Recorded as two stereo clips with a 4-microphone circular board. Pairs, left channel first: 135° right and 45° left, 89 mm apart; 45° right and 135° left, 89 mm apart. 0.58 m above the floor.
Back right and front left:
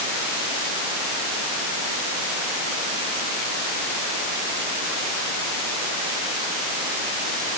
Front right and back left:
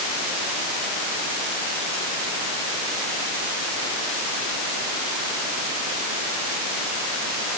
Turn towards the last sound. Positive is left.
No sound to turn to.